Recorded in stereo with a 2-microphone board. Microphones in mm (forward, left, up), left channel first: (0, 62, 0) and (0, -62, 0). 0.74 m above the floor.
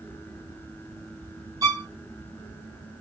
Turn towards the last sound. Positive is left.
turn(degrees=-25)  # may be behind; listen again after turning